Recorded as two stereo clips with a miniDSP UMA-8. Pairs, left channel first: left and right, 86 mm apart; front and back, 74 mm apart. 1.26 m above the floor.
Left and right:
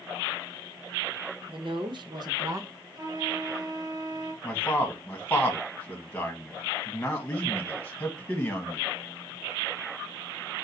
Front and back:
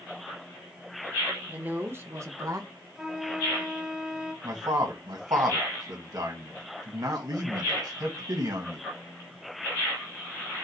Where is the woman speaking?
110° right, 1.2 m; by 2.7 s 145° right, 0.9 m.